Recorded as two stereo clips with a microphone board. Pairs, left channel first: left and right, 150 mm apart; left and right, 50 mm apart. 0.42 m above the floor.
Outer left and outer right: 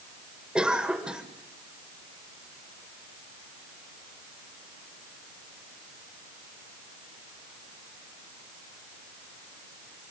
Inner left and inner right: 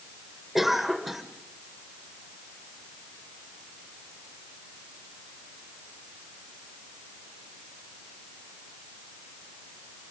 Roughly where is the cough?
Centre.